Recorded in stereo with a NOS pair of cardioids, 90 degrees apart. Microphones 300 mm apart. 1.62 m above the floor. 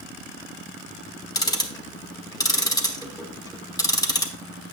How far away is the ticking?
About 1.2 m.